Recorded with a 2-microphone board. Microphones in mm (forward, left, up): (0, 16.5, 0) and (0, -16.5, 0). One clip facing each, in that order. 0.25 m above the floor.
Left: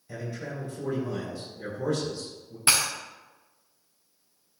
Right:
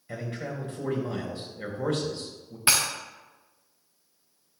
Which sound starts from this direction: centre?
Breaking glass, at 2.7 s.